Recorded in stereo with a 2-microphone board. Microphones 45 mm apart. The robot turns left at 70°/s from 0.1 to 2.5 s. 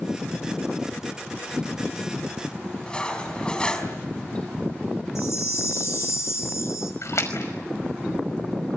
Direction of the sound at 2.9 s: 20° left (ahead or behind).